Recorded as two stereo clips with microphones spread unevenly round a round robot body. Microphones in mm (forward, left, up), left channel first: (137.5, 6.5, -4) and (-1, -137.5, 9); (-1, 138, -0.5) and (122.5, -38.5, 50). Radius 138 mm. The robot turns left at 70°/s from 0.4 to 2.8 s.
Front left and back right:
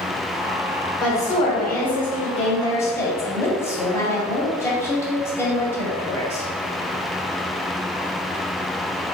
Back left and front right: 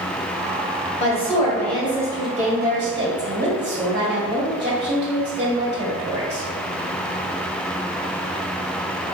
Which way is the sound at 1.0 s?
100° left.